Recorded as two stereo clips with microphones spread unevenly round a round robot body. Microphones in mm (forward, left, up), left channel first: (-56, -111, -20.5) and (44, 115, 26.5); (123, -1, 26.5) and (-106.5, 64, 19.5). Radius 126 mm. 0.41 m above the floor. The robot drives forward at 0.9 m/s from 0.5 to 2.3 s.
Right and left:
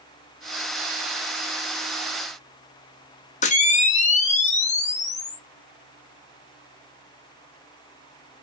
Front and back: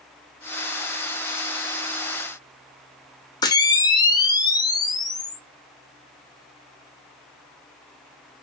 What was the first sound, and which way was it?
A camera shutter, 85° right.